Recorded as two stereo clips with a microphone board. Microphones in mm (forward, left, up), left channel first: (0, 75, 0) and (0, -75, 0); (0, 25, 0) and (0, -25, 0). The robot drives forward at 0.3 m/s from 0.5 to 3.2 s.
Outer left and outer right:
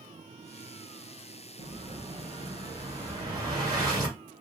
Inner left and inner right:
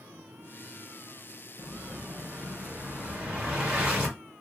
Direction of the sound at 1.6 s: 40° right (ahead or behind).